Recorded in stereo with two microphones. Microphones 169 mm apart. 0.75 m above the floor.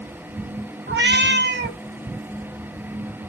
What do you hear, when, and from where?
0.9 s a cat meowing: 85° right, 0.7 m